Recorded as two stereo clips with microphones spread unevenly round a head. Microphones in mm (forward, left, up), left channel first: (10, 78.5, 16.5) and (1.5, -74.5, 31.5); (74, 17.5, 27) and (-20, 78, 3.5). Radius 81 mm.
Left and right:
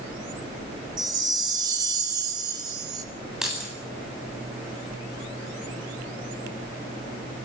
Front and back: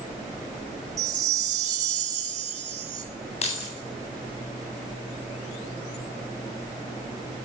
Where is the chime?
155° right, 2.5 m.